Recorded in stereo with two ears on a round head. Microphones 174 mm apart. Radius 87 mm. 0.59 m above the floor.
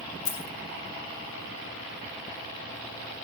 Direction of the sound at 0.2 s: 50° left (ahead or behind).